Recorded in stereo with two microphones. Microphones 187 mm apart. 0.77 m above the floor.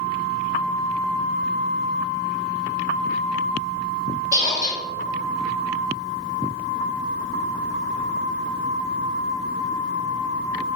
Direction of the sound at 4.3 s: 15° right (ahead or behind).